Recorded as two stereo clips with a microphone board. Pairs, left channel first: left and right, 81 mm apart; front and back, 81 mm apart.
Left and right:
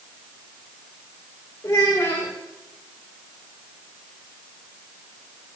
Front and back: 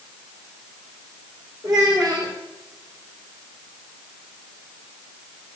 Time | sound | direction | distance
1.6 | a child speaking | 145° left | 2.5 m